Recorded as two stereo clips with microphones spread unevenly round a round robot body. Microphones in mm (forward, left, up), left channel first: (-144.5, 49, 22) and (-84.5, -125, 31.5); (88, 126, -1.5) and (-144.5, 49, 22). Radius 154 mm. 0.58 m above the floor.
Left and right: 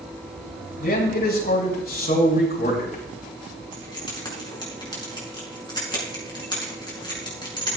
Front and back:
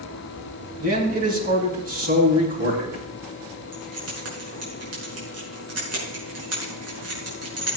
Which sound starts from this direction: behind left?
A man speaking, at 0.8 s.